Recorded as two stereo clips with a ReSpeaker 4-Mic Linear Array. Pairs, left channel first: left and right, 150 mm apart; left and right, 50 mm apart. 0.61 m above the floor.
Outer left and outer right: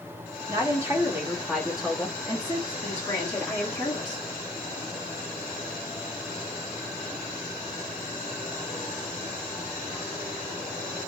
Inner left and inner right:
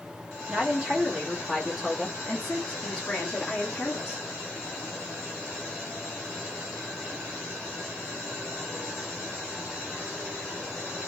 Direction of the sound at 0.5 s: 20° right (ahead or behind).